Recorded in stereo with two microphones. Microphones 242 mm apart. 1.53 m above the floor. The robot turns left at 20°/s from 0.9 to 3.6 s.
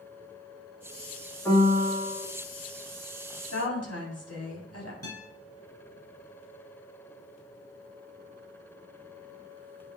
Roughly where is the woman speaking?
Left.